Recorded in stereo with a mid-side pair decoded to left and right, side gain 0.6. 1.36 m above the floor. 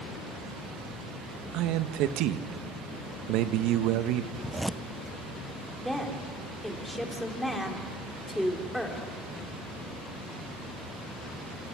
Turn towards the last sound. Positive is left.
turn(degrees=5)